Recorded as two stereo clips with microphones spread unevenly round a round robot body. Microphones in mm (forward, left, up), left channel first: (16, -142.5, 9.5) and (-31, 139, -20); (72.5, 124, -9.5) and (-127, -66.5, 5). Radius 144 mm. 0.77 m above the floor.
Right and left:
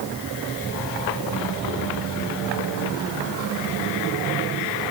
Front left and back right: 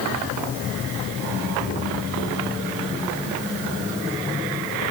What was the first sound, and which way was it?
Only background noise.